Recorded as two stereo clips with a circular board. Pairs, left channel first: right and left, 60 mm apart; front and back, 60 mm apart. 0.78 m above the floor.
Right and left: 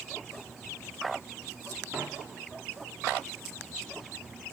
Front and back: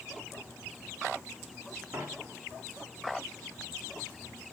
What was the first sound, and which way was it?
A dropped coin, 140° left.